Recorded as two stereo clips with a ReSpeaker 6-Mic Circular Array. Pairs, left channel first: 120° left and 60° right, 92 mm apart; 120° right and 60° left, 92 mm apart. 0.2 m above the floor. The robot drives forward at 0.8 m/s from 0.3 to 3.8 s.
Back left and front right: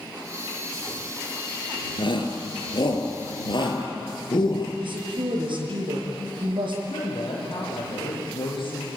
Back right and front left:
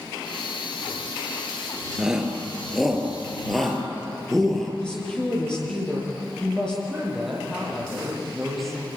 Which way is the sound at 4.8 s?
40° right.